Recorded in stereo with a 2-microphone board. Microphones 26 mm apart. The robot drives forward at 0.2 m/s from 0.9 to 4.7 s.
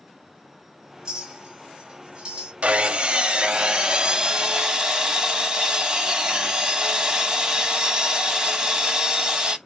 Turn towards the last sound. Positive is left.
turn(degrees=-30)  # may be behind; listen again after turning